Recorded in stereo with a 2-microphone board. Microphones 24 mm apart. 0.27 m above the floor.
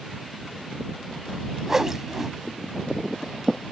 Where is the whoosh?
25° right (ahead or behind).